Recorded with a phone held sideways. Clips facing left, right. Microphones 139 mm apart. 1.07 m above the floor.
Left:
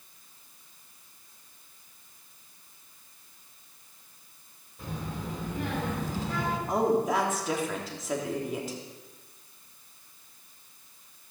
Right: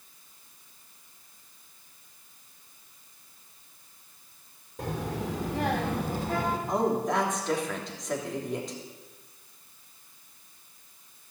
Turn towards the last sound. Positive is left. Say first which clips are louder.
# left 3 dB
turn(degrees=5)  # may be behind; listen again after turning